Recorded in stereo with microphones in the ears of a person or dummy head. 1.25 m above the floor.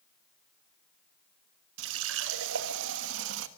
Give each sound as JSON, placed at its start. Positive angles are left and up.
{"t": 1.8, "sound": "a running tap", "side_deg": -75, "distance_m": 1.3}